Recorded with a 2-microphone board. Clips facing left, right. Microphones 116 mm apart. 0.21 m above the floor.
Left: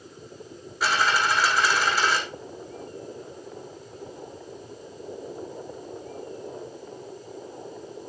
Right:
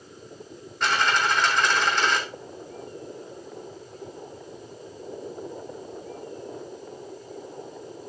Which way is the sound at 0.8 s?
5° left (ahead or behind).